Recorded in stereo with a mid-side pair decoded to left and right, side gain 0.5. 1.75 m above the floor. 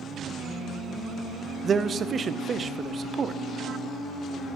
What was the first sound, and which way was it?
A man speaking, 40° right.